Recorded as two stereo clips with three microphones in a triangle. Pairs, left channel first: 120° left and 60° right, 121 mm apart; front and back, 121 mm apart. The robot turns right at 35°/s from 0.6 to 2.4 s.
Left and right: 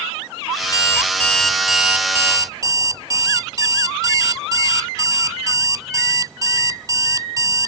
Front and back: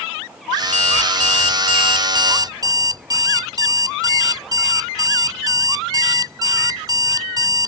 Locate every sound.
0.6 s an alarm clock: 175° left; by 7.7 s 120° right